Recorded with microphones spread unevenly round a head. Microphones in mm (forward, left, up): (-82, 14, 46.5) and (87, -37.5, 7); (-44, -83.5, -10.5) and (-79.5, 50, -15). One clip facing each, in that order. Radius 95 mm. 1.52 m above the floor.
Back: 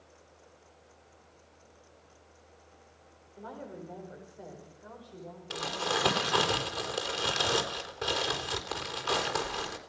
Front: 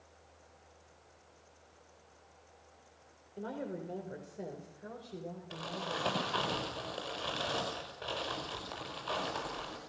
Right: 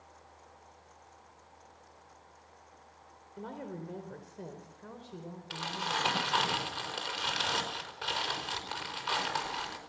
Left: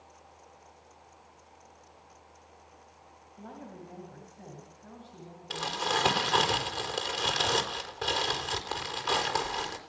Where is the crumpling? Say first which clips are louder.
Back 9 dB, left 5 dB; 150° left, 4.5 m.